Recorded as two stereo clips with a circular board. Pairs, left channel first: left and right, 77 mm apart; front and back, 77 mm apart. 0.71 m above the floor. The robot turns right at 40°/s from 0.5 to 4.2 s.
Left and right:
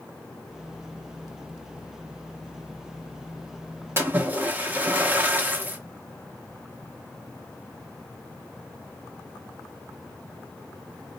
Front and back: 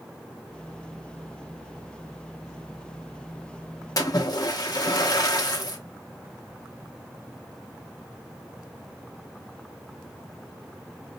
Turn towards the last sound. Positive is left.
turn(degrees=-25)